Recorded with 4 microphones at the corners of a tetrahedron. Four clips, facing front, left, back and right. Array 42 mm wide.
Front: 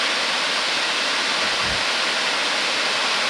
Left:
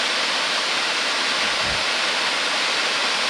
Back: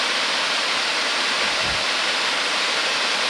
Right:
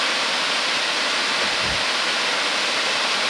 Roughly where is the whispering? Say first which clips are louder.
Even, even; right.